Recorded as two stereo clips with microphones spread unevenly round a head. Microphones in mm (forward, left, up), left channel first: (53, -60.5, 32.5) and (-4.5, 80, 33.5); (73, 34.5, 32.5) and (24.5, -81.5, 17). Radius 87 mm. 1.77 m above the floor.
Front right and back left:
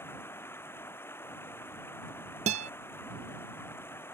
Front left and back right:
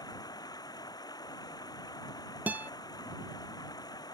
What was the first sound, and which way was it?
Running water, 10° left.